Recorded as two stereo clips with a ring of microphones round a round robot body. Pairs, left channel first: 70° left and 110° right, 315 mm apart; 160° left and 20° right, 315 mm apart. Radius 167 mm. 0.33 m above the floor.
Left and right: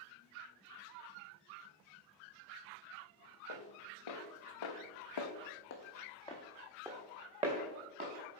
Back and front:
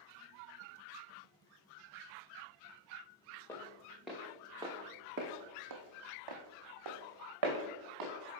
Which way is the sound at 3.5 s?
75° left.